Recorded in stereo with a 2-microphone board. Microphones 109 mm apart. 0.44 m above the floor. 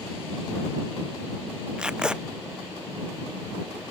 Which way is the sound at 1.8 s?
5° right (ahead or behind).